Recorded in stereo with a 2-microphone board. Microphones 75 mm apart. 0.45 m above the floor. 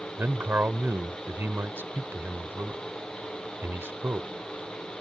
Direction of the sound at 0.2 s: 30° right (ahead or behind).